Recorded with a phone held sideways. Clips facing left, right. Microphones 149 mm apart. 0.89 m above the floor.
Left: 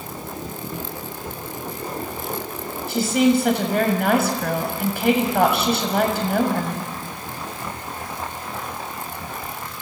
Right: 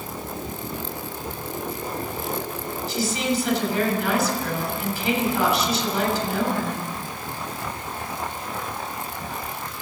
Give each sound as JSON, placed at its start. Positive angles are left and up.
{"t": 2.9, "sound": "a woman speaking", "side_deg": 65, "distance_m": 7.0}